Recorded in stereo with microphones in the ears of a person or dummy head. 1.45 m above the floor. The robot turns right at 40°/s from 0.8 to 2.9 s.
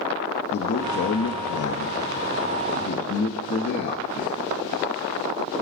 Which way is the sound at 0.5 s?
55° left (ahead or behind).